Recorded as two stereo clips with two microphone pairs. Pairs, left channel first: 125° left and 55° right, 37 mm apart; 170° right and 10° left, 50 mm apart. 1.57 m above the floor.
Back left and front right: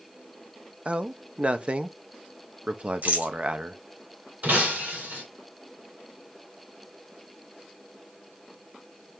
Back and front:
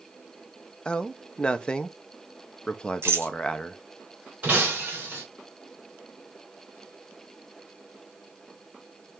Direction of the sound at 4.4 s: 45° right.